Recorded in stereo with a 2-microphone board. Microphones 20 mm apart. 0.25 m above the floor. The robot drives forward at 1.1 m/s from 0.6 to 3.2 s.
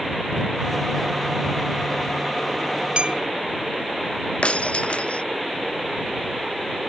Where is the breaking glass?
70° left (ahead or behind).